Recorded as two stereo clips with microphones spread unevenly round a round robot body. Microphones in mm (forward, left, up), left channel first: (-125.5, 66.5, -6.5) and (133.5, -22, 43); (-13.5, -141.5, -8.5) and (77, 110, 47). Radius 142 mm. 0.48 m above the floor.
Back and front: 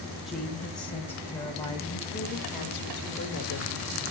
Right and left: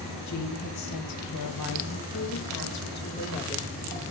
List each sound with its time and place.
0.3 s a woman speaking: 110° right, 3 m; by 3.7 s 175° right, 1.7 m